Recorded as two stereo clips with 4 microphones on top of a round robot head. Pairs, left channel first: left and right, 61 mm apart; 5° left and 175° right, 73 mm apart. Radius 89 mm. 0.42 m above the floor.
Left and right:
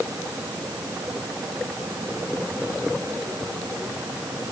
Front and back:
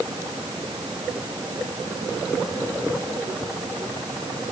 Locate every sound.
Only background noise.